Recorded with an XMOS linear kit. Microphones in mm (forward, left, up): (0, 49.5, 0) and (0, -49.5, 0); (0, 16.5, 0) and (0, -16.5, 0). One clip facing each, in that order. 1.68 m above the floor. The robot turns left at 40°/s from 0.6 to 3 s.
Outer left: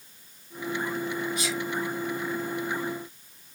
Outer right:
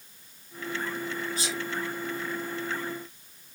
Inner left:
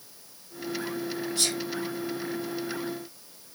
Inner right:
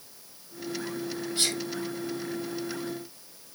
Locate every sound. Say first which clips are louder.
1.4 s a sneeze: outer left 3 dB, inner right 1 dB; 35° right (ahead or behind), 3.5 m; by 1.6 s 25° right (ahead or behind), 3.5 m